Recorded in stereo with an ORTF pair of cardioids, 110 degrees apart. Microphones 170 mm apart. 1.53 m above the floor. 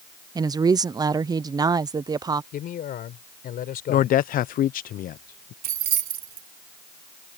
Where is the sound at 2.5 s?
60° left.